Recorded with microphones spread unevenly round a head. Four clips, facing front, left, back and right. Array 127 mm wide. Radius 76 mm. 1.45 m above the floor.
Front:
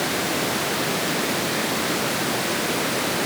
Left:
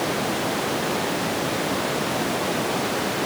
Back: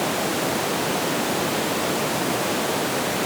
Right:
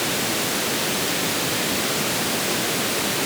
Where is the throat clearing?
I don't hear throat clearing.